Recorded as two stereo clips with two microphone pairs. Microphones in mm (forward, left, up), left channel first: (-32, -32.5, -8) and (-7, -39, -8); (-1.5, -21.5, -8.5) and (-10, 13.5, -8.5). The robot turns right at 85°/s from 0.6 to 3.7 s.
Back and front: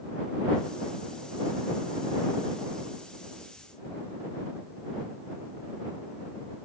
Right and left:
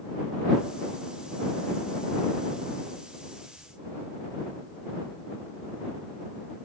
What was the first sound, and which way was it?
Only background noise.